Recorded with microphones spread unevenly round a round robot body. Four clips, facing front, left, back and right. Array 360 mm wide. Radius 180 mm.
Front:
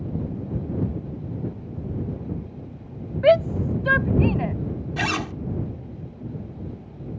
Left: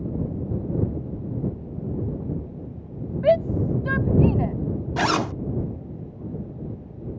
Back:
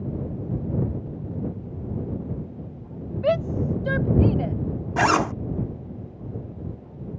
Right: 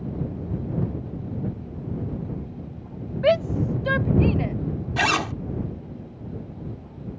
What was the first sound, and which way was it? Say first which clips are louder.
A shout: left 1 dB, front 6 dB; straight ahead.